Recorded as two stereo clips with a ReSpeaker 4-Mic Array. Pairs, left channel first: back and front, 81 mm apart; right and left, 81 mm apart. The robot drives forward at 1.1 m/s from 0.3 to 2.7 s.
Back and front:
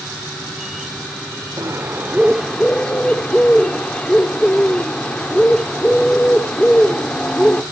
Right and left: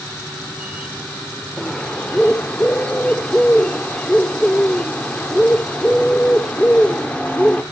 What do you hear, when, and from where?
1.6 s a bird: 15° right, 1.5 m; by 7.6 s 130° right, 1.1 m